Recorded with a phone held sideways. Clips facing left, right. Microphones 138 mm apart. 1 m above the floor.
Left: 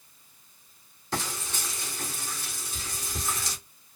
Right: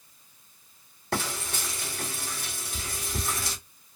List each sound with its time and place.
1.1 s frying: 60° right (ahead or behind), 2.5 m